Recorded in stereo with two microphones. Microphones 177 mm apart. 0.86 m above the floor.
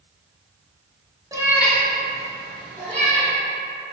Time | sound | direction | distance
1.3 | a cat meowing | 20° right (ahead or behind) | 0.6 m